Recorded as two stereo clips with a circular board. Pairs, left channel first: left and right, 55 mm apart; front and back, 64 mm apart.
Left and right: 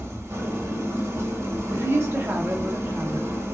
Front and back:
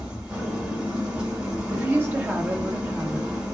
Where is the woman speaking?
125° right, 0.7 m.